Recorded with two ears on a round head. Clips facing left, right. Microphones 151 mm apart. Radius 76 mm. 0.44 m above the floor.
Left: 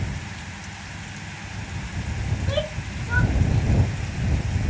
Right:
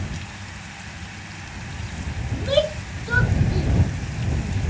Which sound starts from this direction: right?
A shout, at 2.3 s.